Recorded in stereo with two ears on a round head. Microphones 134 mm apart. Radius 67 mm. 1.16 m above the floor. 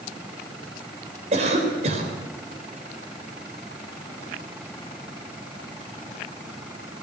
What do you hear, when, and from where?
1.3 s a cough: 45° right (ahead or behind), 4.5 m